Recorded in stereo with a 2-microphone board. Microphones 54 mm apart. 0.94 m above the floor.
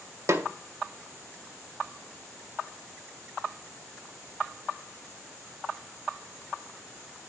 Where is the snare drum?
55° right (ahead or behind), 0.6 m.